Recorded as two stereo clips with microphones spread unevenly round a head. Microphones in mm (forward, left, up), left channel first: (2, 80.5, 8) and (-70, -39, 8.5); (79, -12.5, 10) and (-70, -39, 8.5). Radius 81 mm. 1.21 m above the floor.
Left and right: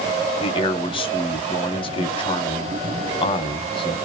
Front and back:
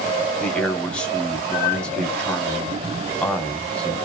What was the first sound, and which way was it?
A man speaking, 90° left.